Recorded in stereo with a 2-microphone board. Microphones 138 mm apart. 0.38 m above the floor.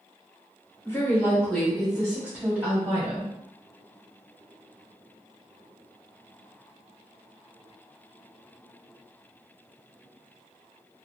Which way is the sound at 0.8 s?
20° left (ahead or behind).